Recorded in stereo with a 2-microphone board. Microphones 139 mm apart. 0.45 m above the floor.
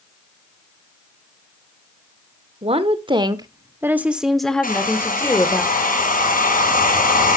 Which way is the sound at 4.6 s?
80° left.